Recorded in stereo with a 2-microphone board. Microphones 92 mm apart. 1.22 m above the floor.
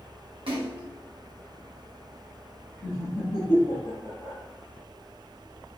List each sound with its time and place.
0.5 s a splash: 75° right (ahead or behind), 1.1 m
2.8 s laughter: 65° left (ahead or behind), 1.7 m